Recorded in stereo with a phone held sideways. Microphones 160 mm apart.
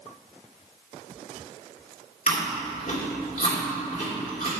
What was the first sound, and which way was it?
Chewing, 55° left (ahead or behind).